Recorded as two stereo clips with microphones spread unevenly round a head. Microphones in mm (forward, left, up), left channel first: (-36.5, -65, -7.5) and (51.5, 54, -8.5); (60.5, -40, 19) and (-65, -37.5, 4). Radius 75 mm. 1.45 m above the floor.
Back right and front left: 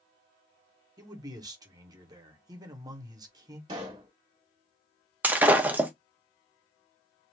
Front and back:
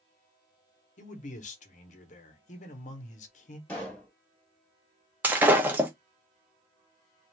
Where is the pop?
55° left, 1.3 m.